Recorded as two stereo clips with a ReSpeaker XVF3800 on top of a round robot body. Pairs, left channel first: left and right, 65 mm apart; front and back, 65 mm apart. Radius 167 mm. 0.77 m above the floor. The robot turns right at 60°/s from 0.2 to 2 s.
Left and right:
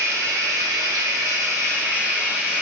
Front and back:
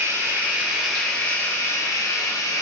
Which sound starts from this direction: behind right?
Running water, at 0.0 s.